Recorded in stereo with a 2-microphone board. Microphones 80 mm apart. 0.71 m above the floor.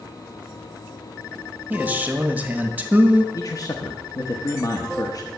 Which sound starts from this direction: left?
A man speaking, at 3.3 s.